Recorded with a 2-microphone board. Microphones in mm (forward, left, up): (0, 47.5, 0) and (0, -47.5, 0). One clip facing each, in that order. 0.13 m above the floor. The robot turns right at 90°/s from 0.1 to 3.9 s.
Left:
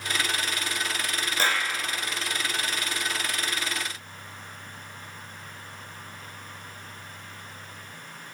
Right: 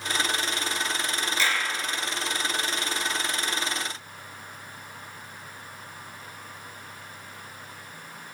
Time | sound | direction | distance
1.4 | a clap | 50° left (ahead or behind) | 1.3 m